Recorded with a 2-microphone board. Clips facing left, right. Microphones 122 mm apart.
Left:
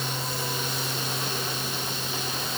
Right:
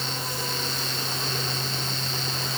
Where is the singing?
I don't hear singing.